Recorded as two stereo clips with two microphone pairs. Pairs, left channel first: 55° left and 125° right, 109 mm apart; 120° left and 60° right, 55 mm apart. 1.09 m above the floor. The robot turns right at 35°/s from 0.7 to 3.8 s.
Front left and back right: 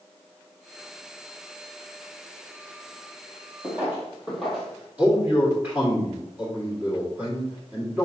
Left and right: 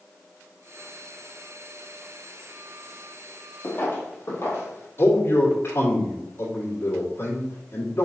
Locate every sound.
3.6 s footsteps: 160° left, 1.7 m; by 4.9 s 140° left, 1.9 m
5.0 s a man speaking: 160° left, 2.0 m